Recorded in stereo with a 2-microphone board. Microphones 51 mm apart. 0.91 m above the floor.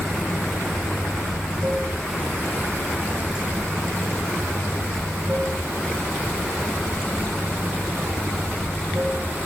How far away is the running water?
About 5 m.